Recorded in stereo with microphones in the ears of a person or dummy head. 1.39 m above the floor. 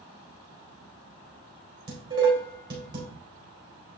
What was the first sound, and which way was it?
Dishes clattering, 20° right (ahead or behind).